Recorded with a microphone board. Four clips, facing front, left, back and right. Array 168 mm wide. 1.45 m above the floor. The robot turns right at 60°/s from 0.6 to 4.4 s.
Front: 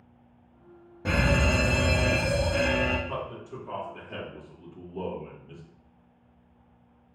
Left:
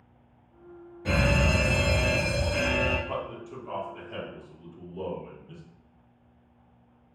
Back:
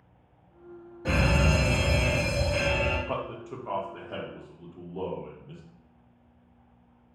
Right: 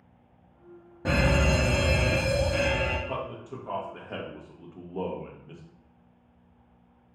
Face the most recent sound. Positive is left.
turn(degrees=-105)